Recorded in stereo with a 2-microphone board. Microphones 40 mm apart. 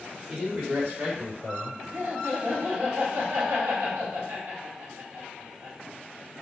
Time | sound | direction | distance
0.3 | a man speaking | 25° right (ahead or behind) | 1.7 m
1.9 | laughter | 50° right (ahead or behind) | 1.5 m